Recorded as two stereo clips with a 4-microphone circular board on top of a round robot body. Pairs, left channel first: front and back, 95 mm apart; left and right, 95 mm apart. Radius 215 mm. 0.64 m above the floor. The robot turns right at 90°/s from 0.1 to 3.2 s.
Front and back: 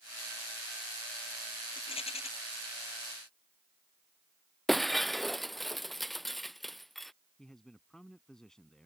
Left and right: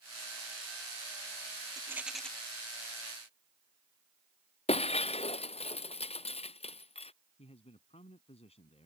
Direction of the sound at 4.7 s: 90° left.